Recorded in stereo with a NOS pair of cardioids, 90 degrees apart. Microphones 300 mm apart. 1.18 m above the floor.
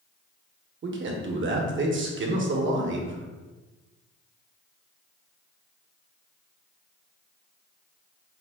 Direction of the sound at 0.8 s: 45° right.